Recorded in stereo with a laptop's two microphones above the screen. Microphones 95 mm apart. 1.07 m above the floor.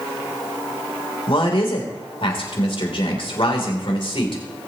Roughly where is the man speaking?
Left.